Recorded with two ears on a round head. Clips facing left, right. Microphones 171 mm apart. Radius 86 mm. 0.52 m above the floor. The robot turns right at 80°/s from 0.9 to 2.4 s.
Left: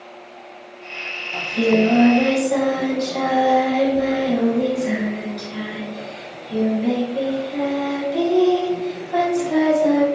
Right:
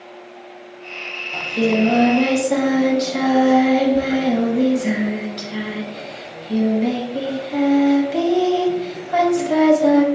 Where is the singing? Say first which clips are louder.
Left 1 dB; 175° right, 0.5 m; by 10.1 s 90° right, 0.5 m.